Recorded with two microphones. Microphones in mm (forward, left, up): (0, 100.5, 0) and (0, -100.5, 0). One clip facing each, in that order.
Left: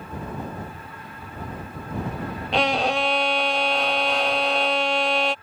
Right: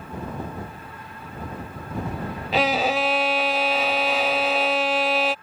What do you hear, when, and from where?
2.5 s a violin: 5° right (ahead or behind)